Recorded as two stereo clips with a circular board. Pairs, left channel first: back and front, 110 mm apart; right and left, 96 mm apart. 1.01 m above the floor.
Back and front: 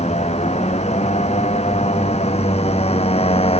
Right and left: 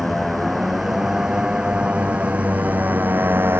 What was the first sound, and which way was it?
A motorcycle, straight behind.